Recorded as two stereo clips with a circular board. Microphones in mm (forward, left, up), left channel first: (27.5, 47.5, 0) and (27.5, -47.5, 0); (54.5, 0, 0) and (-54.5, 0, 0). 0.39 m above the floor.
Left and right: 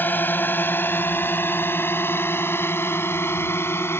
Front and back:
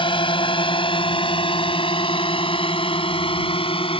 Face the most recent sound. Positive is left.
turn(degrees=30)